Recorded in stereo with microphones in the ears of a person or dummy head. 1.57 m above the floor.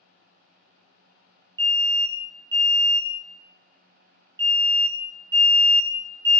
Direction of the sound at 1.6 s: 20° right (ahead or behind).